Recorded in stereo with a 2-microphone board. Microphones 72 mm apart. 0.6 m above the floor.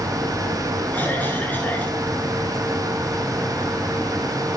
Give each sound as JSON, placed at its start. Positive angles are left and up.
{"t": 0.9, "sound": "a cough", "side_deg": 25, "distance_m": 10.0}